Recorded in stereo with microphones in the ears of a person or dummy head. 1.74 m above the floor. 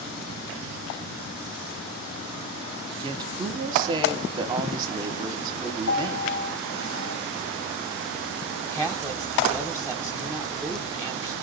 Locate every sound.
3.0 s a woman speaking: 25° right (ahead or behind), 1.1 m
5.9 s a piano: 80° left, 1.8 m
8.6 s a woman speaking: 5° right (ahead or behind), 1.2 m